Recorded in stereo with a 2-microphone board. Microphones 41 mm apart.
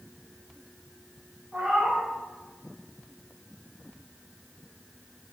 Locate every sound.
1.5 s a cat meowing: 20° right (ahead or behind), 3 m